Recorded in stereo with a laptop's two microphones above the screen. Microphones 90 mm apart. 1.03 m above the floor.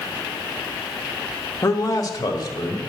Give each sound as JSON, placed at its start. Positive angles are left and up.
{"t": 1.6, "sound": "a man speaking", "side_deg": 35, "distance_m": 1.2}